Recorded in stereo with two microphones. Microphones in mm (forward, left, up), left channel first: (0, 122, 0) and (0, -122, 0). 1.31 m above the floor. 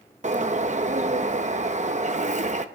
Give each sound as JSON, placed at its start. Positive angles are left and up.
{"t": 0.2, "sound": "a bird", "side_deg": -30, "distance_m": 0.7}